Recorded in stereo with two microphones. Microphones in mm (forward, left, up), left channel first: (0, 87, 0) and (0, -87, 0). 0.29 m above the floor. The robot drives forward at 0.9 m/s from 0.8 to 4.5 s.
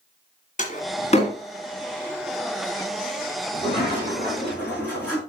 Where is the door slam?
45° left (ahead or behind), 1.7 m; by 1.4 s 35° left (ahead or behind), 2 m.